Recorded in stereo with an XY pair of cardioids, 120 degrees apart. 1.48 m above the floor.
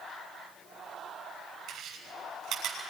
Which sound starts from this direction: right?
Chewing, at 1.7 s.